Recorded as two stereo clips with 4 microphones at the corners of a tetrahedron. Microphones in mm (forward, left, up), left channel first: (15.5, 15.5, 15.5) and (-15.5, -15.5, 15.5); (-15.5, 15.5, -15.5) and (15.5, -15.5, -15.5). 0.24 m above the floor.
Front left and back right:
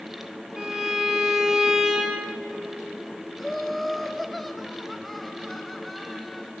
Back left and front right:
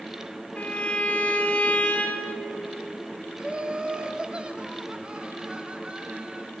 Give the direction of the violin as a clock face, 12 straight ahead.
7 o'clock.